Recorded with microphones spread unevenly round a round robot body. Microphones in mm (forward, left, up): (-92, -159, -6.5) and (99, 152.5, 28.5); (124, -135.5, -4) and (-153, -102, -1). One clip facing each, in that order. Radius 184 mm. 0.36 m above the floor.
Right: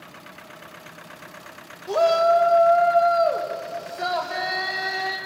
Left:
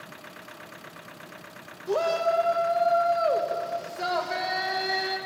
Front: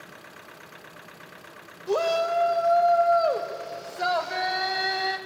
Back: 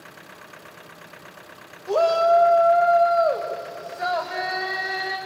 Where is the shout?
50° right, 1.4 m; by 5.2 s 30° right, 3 m.